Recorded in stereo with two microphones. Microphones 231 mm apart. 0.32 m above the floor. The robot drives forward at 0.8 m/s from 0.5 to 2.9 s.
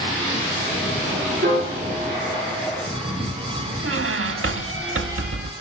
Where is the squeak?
65° right (ahead or behind), 0.5 m.